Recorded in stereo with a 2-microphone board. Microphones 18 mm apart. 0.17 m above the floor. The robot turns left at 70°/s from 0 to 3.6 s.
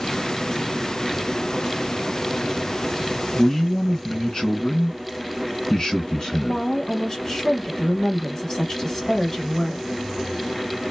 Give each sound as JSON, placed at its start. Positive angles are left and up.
{"t": 3.3, "sound": "a man speaking", "side_deg": 25, "distance_m": 1.7}
{"t": 6.3, "sound": "a woman speaking", "side_deg": 25, "distance_m": 1.1}